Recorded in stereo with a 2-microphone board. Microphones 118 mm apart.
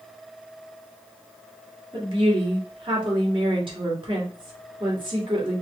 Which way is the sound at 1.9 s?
50° right (ahead or behind).